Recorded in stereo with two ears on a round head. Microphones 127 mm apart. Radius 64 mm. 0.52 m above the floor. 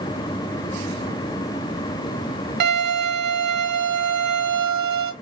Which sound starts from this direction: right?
A violin, at 2.6 s.